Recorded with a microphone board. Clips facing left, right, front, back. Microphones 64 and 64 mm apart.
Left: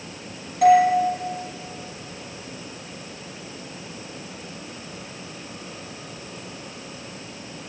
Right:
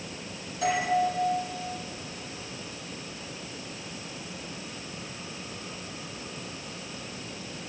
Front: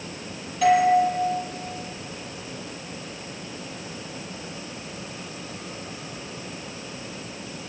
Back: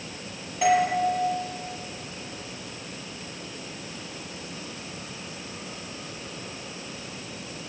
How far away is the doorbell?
About 5 m.